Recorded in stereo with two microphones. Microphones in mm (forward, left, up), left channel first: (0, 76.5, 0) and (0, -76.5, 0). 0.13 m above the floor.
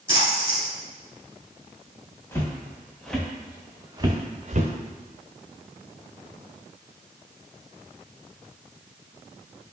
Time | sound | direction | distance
0.1 | a splash | 20° right (ahead or behind) | 1.8 m
2.3 | footsteps | 20° left (ahead or behind) | 1.6 m